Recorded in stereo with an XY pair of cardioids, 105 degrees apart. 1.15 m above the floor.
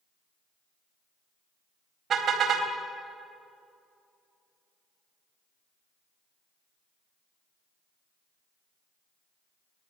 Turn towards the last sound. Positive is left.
turn(degrees=-55)